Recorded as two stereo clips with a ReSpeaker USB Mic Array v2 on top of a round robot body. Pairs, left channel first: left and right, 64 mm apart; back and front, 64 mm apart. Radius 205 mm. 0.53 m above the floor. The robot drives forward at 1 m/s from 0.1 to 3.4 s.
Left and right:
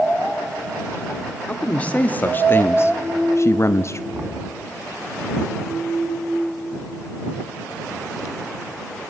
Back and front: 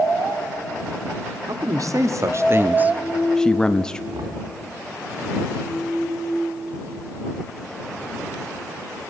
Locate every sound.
1.5 s a man speaking: 20° left, 2 m; by 4.0 s 105° left, 1.0 m
4.1 s knocking: 20° right, 3.5 m